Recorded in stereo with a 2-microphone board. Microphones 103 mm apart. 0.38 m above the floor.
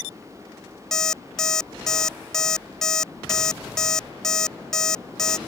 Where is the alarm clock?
5° left (ahead or behind).